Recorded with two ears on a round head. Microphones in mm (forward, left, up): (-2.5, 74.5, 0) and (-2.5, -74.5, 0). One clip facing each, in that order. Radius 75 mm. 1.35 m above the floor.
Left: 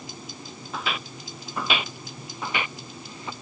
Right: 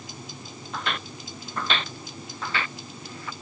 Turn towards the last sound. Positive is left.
turn(degrees=20)  # may be behind; listen again after turning